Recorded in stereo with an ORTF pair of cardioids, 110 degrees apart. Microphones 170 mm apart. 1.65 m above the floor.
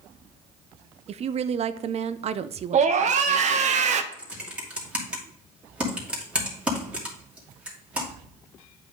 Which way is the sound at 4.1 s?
10° right.